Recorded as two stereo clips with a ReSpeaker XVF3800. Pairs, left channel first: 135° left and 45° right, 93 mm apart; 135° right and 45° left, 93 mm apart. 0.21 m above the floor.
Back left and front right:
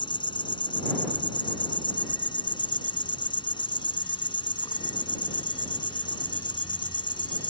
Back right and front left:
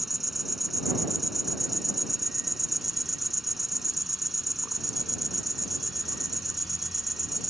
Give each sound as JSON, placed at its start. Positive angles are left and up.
{"t": 0.0, "sound": "an insect", "azimuth_deg": 135}